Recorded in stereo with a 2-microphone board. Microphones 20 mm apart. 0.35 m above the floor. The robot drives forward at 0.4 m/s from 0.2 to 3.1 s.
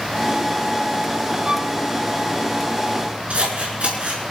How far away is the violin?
About 1.2 m.